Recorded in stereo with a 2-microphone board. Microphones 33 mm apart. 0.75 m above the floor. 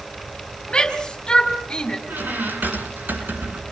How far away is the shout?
About 5 m.